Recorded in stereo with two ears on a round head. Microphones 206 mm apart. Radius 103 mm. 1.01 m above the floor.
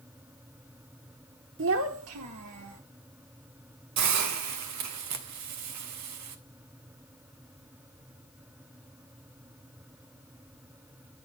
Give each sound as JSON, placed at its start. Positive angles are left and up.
{"t": 1.6, "sound": "a child speaking", "side_deg": -55, "distance_m": 1.1}
{"t": 4.0, "sound": "a hiss", "side_deg": -85, "distance_m": 1.7}